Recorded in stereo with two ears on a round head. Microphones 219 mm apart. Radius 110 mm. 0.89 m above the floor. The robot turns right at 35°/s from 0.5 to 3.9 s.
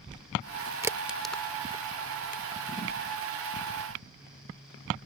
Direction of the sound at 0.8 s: 10° right (ahead or behind).